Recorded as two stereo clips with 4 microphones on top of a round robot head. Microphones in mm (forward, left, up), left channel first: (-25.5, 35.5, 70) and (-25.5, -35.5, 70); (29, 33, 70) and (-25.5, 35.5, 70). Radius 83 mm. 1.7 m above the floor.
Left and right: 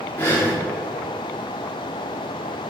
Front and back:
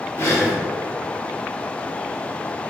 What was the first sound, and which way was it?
Breathing, 25° left.